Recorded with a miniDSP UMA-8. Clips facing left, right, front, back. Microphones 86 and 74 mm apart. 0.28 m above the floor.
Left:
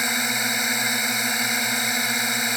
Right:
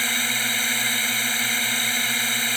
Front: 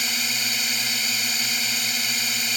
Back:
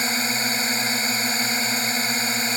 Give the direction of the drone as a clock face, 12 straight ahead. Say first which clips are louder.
Left 2 dB, back 5 dB; 7 o'clock.